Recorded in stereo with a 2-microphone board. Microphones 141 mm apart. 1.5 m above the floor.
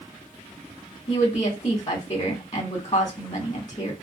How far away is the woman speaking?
About 2 m.